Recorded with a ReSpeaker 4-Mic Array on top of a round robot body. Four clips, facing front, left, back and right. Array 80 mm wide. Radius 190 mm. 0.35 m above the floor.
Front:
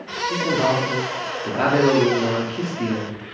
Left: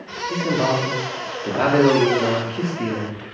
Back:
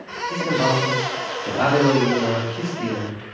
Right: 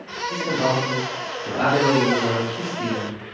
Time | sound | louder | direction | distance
0.3 | a man speaking | left 2 dB, even | 50° left | 1.2 m